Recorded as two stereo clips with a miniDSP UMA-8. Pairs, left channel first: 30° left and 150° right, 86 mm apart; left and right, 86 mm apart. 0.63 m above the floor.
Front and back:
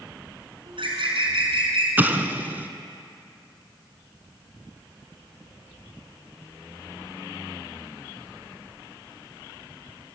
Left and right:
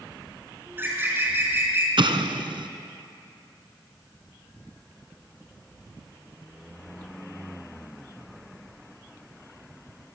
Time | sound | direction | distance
0.7 | a bird | 155° right | 4.5 m
2.0 | an explosion | 80° right | 1.4 m